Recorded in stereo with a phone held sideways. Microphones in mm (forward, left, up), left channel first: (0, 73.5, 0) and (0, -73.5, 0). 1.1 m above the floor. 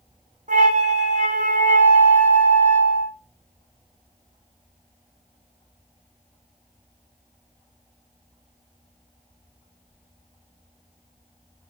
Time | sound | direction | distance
0.5 | a flute | 60° right (ahead or behind) | 0.9 m